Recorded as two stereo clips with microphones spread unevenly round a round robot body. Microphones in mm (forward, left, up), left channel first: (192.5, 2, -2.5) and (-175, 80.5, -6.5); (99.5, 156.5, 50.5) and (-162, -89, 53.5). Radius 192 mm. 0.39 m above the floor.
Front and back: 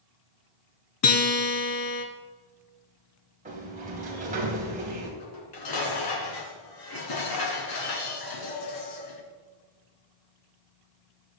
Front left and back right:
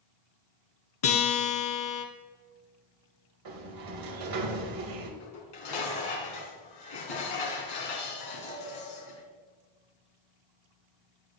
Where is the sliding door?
125° right, 2.5 m.